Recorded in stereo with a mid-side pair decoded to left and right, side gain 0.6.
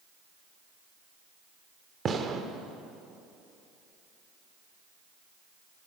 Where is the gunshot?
35° right, 1.2 m.